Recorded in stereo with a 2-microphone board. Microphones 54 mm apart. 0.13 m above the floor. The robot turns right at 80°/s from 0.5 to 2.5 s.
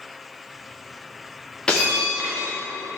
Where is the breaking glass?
160° left, 4.5 m; by 2.6 s 130° right, 4.5 m.